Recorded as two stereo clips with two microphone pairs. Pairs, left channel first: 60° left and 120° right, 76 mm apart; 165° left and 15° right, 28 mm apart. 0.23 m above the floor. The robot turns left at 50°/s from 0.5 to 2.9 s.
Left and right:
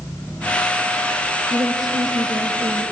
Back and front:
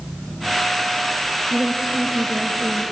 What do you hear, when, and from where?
1.5 s a woman speaking: 75° right, 4 m; by 2.8 s 145° right, 4 m